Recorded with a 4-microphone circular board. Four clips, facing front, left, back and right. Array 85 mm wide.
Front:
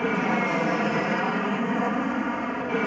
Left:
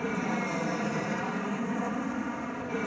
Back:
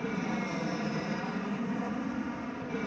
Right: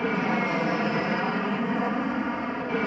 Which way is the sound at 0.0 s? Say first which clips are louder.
Right 5 dB, front 9 dB; 25° right.